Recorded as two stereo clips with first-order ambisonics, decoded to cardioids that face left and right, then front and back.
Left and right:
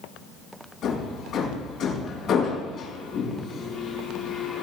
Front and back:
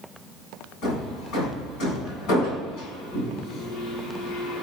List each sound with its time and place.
0.8 s hammering: 35° left, 5 m